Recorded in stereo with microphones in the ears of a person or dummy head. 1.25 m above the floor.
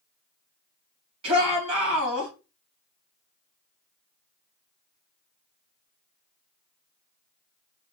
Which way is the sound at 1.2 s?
30° right (ahead or behind).